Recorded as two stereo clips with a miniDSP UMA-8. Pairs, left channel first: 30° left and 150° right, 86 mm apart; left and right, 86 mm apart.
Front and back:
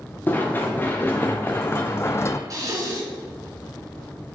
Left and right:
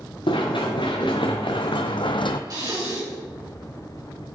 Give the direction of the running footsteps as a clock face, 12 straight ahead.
9 o'clock.